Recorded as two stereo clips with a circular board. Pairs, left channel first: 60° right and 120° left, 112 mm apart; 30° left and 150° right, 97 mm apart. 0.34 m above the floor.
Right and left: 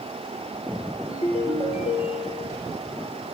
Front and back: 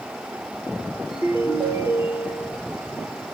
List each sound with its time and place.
1.1 s a ringtone: 85° right, 3.5 m